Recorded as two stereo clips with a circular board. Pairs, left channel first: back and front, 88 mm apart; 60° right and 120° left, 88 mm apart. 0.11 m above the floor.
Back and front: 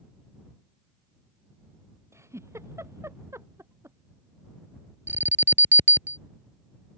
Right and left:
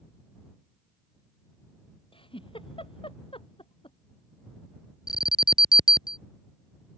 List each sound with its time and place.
2.1 s a giggle: 60° right
5.1 s an alarm: 60° right